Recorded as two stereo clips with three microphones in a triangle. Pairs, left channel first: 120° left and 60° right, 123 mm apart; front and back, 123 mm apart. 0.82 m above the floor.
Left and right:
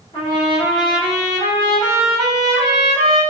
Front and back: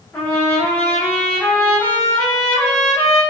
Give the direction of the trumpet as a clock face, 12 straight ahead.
10 o'clock.